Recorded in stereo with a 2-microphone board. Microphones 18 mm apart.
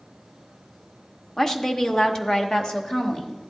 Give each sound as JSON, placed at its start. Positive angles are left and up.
{"t": 1.4, "sound": "a woman speaking", "side_deg": 20, "distance_m": 0.7}